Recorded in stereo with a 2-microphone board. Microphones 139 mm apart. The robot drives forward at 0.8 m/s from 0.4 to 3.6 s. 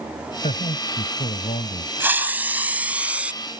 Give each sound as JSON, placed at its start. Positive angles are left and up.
{"t": 0.4, "sound": "a man speaking", "side_deg": 70}
{"t": 2.0, "sound": "a hiss", "side_deg": -15}